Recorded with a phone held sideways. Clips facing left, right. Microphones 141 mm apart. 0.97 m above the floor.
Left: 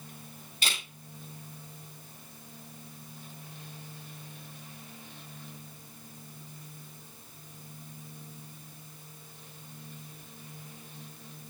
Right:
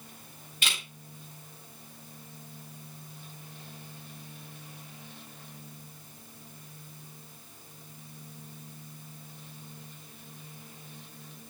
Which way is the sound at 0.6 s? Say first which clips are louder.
Even; 35° left (ahead or behind).